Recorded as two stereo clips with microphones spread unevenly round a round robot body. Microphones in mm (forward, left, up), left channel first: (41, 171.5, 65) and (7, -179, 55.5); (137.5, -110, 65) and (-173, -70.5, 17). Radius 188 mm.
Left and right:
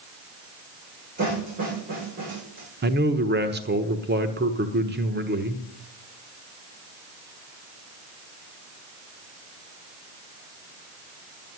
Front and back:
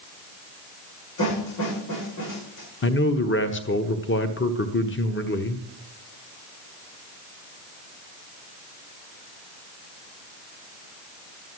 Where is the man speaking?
50° right, 1.1 m.